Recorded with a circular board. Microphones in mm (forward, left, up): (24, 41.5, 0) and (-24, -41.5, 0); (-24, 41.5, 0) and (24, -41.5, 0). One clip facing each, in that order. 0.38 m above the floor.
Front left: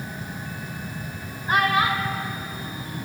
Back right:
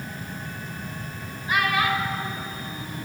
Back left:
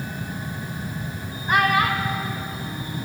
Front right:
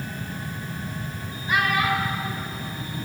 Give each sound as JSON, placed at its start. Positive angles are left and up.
{"t": 1.5, "sound": "a child speaking", "azimuth_deg": 95, "distance_m": 0.6}